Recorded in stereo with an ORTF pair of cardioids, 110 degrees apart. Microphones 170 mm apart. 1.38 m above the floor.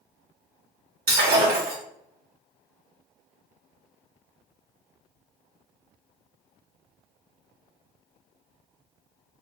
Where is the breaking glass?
65° right, 1.8 m.